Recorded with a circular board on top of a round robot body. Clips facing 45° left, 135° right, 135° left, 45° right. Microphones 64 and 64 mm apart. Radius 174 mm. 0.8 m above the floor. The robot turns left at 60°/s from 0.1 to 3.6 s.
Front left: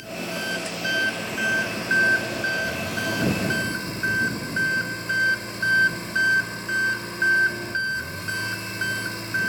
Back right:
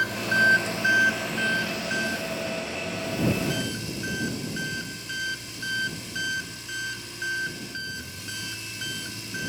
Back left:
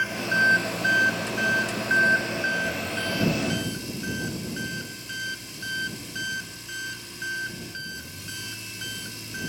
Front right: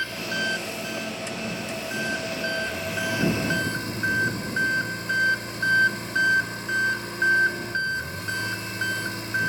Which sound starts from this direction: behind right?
An engine running, at 0.0 s.